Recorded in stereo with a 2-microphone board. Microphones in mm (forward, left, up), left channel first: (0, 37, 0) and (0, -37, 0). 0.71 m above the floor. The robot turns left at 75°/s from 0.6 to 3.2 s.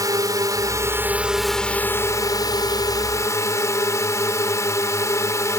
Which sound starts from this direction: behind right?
A drone, at 0.0 s.